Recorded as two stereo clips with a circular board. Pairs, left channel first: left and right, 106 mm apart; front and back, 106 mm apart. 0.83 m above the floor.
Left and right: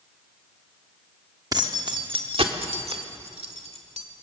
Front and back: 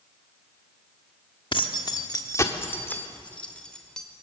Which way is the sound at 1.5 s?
40° right.